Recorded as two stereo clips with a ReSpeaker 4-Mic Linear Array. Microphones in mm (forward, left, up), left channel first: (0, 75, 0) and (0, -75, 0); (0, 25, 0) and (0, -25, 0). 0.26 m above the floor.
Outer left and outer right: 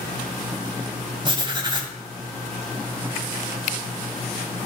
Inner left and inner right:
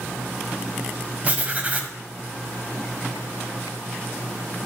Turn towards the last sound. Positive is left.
turn(degrees=-30)  # may be behind; listen again after turning